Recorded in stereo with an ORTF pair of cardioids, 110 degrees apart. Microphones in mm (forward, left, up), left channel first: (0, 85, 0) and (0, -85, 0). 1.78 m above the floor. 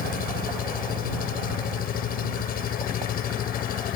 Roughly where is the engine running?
Ahead left.